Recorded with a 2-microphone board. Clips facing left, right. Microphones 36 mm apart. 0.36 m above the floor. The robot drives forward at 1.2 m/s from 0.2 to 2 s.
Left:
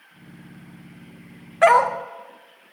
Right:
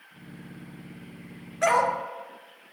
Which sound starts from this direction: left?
A dog barking, at 1.6 s.